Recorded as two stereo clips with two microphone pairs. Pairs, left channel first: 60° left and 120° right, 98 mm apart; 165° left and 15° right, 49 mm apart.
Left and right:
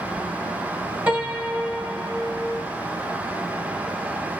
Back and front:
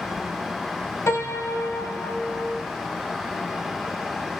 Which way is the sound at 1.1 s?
165° left.